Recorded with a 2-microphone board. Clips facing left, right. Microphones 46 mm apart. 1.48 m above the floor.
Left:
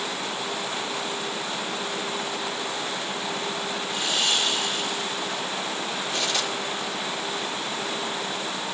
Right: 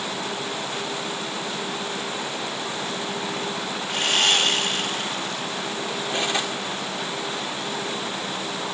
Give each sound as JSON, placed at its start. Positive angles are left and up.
{"t": 3.9, "sound": "sawing", "side_deg": -60, "distance_m": 1.3}
{"t": 6.1, "sound": "cutlery clinking", "side_deg": -25, "distance_m": 2.0}